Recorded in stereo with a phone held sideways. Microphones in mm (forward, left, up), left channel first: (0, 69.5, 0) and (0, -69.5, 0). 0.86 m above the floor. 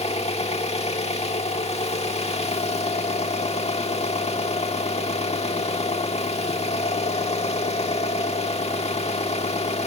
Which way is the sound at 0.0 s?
50° left (ahead or behind).